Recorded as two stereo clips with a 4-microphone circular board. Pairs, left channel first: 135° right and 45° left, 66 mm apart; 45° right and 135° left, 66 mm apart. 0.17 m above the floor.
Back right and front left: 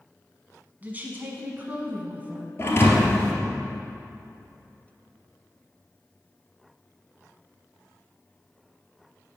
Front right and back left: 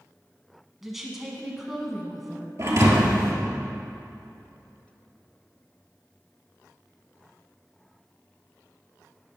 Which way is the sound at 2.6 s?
175° left.